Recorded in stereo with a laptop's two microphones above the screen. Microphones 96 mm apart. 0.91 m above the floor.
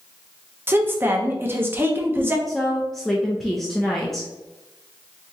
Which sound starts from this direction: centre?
A woman speaking, at 2.5 s.